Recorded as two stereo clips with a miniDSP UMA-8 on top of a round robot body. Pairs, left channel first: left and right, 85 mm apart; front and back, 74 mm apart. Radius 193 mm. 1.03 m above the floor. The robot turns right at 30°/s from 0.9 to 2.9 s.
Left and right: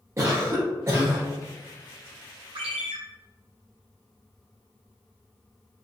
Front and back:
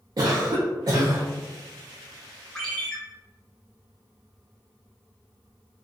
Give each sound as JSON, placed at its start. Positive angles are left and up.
{"t": 0.2, "sound": "a cough", "azimuth_deg": -145, "distance_m": 0.5}
{"t": 2.5, "sound": "a ringtone", "azimuth_deg": -85, "distance_m": 0.9}